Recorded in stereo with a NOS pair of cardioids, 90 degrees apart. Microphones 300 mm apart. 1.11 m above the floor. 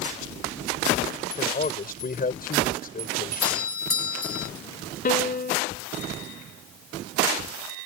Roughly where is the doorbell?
Ahead left.